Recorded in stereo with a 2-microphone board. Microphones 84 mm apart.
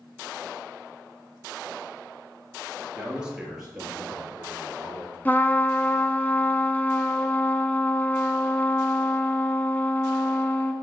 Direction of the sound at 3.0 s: 15° right (ahead or behind).